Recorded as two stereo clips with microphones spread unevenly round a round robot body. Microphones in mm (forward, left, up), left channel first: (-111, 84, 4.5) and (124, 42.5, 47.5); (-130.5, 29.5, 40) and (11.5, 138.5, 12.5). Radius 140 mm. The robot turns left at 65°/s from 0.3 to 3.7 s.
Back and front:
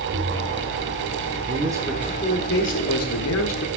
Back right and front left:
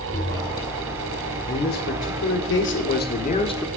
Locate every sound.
0.1 s tapping: 70° right, 1.5 m; by 0.6 s 85° right, 1.5 m
1.5 s a man speaking: 75° right, 1.5 m; by 3.7 s 140° left, 1.5 m